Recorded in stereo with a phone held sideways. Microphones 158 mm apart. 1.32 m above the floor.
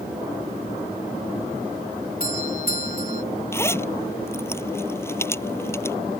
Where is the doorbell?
65° left (ahead or behind).